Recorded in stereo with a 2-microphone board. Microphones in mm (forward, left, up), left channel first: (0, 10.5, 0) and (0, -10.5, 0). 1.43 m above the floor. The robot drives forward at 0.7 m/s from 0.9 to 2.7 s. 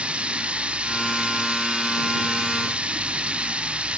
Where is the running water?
85° right.